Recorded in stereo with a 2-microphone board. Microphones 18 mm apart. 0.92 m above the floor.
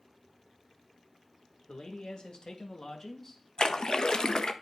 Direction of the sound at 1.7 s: 65° left (ahead or behind).